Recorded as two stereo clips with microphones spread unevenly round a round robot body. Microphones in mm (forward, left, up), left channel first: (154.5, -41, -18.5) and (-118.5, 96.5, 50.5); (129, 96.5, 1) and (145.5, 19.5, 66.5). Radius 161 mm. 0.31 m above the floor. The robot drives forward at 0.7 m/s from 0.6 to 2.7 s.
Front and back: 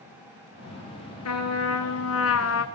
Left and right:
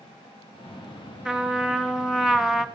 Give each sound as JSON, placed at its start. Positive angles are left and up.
{"t": 1.2, "sound": "a trumpet", "azimuth_deg": 10, "distance_m": 2.0}